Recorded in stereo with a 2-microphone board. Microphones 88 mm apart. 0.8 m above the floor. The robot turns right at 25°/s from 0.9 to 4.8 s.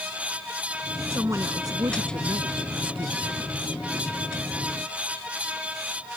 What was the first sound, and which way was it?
A woman speaking, 150° right.